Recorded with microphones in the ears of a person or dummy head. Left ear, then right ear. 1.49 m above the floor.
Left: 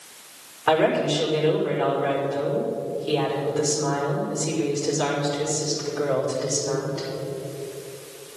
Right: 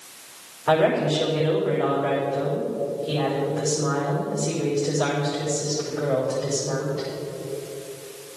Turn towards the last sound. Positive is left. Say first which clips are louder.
# even
turn(degrees=85)